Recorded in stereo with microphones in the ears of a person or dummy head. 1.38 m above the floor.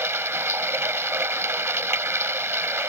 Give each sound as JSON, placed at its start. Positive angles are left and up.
{"t": 0.0, "sound": "running water", "side_deg": -10}